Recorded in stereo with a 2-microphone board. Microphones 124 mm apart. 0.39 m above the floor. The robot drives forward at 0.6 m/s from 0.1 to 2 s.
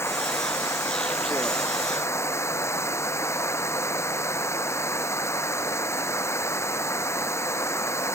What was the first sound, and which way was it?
Running water, 20° left (ahead or behind).